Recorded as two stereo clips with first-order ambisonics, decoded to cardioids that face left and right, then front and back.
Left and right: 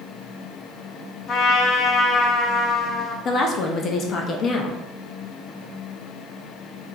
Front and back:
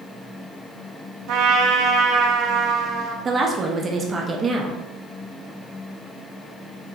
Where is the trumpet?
145° left, 0.6 m.